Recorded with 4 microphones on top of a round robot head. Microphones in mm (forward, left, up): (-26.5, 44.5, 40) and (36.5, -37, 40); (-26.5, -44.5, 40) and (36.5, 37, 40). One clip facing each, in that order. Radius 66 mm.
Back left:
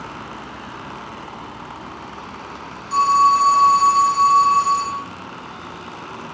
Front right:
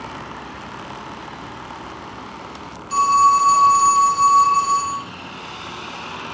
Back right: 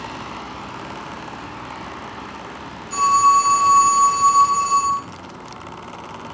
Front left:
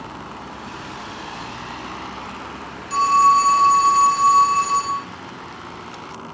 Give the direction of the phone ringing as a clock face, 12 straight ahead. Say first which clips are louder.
Even, even; 11 o'clock.